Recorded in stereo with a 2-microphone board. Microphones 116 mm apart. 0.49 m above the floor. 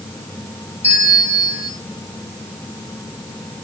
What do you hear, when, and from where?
0.8 s a bell: 75° left (ahead or behind), 5.5 m